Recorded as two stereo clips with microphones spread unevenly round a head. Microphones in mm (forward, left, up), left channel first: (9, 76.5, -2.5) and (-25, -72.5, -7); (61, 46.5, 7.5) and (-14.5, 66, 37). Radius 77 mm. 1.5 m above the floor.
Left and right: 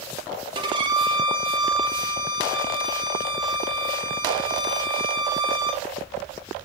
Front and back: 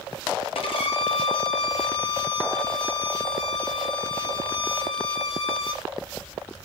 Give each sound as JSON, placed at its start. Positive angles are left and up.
{"t": 0.6, "sound": "a violin", "azimuth_deg": -40, "distance_m": 1.2}